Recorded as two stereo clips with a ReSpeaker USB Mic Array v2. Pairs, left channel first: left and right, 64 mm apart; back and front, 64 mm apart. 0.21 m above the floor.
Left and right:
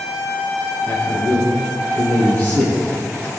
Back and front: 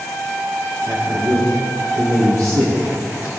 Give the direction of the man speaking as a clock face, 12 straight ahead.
11 o'clock.